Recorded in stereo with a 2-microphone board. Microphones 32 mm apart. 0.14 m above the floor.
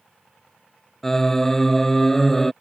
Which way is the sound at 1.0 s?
10° left (ahead or behind).